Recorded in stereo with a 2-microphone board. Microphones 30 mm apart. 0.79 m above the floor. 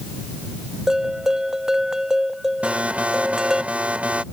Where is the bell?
20° right (ahead or behind).